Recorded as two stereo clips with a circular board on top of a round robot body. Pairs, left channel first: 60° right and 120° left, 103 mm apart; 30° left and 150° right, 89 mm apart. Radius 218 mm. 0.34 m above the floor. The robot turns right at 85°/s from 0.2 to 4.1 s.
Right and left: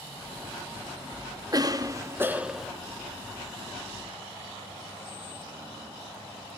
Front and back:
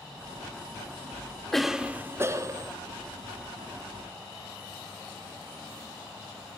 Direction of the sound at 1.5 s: 115° left.